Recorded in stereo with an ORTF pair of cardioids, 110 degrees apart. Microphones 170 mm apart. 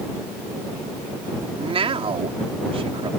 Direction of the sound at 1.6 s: 35° right.